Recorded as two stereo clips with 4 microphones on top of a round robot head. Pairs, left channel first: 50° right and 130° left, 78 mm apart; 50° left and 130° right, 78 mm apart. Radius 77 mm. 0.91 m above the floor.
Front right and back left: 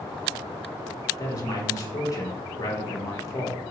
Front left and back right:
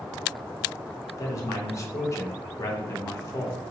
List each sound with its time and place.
1.2 s a man speaking: 5° right, 0.8 m